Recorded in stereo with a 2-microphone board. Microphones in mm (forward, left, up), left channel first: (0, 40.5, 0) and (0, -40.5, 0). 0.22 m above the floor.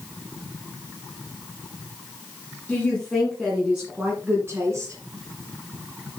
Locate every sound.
2.7 s a woman speaking: 15° left (ahead or behind), 3 m; by 5.0 s 40° right (ahead or behind), 3.5 m